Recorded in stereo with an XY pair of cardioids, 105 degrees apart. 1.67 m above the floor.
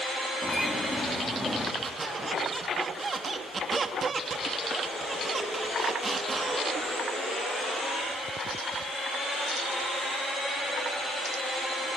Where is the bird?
5° left, 3 m.